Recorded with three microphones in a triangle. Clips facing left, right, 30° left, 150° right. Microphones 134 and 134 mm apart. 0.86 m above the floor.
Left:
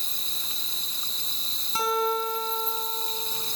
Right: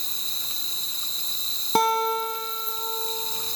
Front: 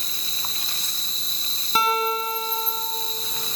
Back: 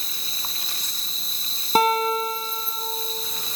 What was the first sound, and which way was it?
An insect, 65° right.